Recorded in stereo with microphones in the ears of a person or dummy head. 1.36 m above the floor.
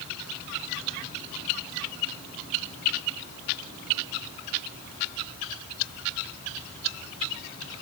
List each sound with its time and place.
Only background noise.